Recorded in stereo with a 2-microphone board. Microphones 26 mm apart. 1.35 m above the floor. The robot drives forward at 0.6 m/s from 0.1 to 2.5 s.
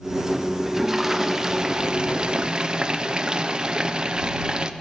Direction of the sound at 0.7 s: 15° right (ahead or behind).